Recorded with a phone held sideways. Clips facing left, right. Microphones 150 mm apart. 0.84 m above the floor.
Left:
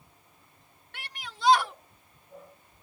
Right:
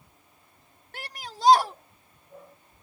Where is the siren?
I don't hear a siren.